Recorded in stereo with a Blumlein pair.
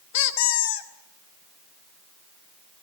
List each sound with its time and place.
0.1 s a squeak: 50° left, 1.5 m